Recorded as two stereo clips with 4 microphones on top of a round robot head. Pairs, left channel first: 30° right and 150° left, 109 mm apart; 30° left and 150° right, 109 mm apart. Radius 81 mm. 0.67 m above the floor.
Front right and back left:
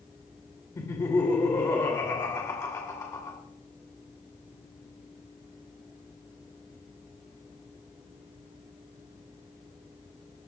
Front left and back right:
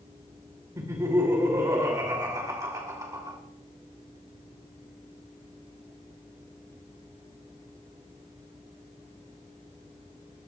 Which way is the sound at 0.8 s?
90° right.